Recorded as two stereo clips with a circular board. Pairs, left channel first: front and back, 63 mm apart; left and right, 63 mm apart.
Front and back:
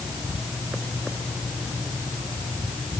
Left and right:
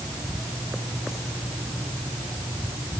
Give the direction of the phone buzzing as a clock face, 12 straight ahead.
No phone buzzing in this recording.